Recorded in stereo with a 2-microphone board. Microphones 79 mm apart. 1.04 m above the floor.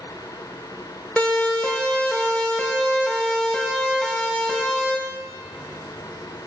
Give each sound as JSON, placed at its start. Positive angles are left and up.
{"t": 1.2, "sound": "a siren", "side_deg": 15, "distance_m": 5.0}